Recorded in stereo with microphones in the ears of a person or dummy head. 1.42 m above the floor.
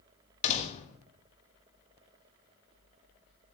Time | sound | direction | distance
0.4 | a door slam | 35° left (ahead or behind) | 1.2 m